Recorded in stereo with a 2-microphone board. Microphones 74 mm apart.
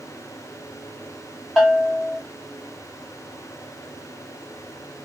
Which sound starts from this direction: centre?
A bell, at 1.6 s.